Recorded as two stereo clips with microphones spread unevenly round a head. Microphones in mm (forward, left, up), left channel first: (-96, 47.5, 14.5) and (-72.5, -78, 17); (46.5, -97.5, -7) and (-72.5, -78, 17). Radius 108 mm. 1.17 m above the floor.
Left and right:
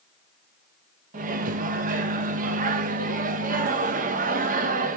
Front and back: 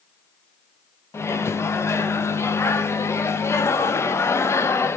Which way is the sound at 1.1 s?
85° right.